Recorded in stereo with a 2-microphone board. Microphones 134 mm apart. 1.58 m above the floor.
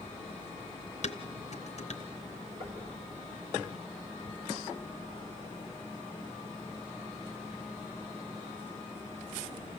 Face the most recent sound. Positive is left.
turn(degrees=-65)  # may be behind; listen again after turning